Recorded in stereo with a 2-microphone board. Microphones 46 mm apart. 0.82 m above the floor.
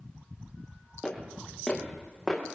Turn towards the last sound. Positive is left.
turn(degrees=5)  # may be behind; listen again after turning